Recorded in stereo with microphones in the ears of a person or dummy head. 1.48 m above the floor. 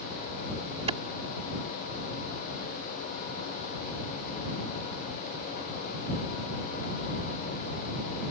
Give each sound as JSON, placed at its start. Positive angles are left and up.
{"t": 0.9, "sound": "a clap", "side_deg": -30}